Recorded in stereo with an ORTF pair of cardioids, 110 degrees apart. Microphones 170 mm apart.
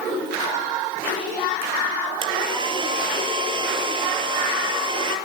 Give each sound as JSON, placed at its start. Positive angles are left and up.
{"t": 2.2, "sound": "a hair dryer", "azimuth_deg": -30, "distance_m": 4.5}